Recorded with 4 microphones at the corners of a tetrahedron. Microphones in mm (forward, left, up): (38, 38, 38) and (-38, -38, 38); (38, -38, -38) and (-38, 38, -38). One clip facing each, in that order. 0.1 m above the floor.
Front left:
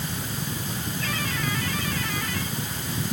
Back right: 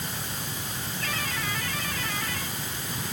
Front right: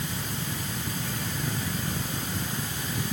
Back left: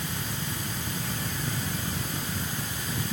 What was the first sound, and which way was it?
Only background noise.